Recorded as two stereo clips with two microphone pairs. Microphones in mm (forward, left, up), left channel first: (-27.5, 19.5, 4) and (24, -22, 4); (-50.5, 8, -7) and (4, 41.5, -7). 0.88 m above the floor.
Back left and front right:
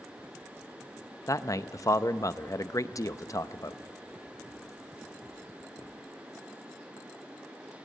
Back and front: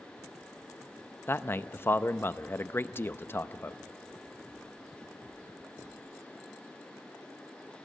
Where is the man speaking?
160° left, 0.6 m.